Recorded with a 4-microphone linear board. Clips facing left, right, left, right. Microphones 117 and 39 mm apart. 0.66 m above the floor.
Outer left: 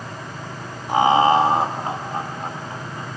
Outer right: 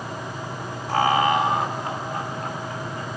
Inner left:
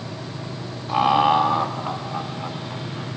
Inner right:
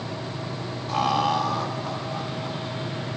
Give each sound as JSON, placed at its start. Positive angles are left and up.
{"t": 0.9, "sound": "laughter", "side_deg": 15, "distance_m": 0.8}